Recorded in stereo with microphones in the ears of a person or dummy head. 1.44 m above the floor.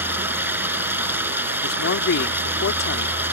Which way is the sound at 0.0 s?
10° right (ahead or behind).